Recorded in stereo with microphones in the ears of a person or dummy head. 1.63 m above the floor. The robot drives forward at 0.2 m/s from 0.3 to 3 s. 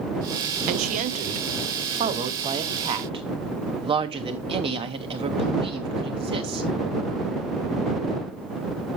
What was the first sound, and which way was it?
A woman speaking, 40° right (ahead or behind).